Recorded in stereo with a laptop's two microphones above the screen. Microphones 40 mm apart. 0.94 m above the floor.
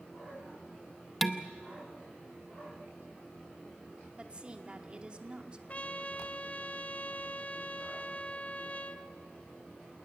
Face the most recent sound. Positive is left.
turn(degrees=35)  # may be behind; listen again after turning